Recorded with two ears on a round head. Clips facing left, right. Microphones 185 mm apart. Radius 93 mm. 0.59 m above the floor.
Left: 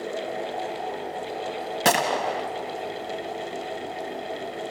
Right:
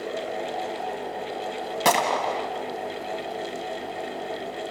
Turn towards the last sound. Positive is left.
turn(degrees=10)  # may be behind; listen again after turning